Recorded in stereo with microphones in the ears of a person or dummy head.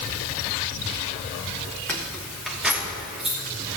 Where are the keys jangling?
5° left (ahead or behind), 0.8 m; by 3.4 s 5° right (ahead or behind), 3 m.